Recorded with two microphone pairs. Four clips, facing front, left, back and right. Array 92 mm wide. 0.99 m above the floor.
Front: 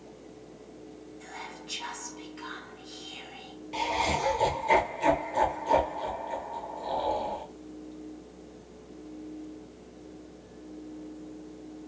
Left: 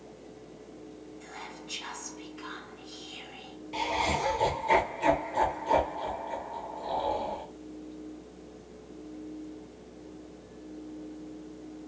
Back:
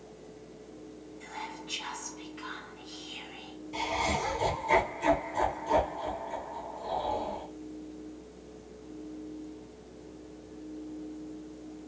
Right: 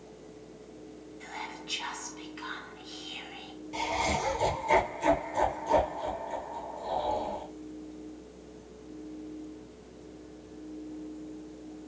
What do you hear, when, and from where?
1.2 s whispering: 75° right, 1.1 m
3.7 s laughter: 15° left, 0.8 m